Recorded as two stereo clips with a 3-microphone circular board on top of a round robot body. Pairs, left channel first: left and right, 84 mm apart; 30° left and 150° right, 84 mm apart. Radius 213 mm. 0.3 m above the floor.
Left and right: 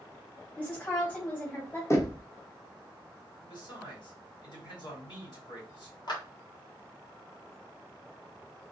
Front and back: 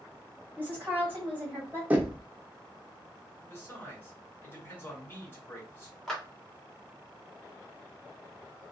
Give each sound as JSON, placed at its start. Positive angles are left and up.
{"t": 0.6, "sound": "a woman speaking", "azimuth_deg": 150, "distance_m": 1.8}
{"t": 1.9, "sound": "knocking", "azimuth_deg": 140, "distance_m": 0.9}
{"t": 3.4, "sound": "a man speaking", "azimuth_deg": 90, "distance_m": 2.0}
{"t": 6.1, "sound": "a clap", "azimuth_deg": 115, "distance_m": 1.2}